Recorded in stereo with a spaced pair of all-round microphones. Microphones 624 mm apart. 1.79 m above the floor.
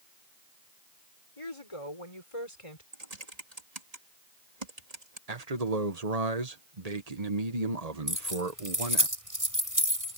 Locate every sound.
1.4 s a woman speaking: 55° left (ahead or behind)
2.9 s typing on a keyboard: 75° right (ahead or behind)
5.3 s a man speaking: 80° right
8.1 s keys jangling: 30° right (ahead or behind)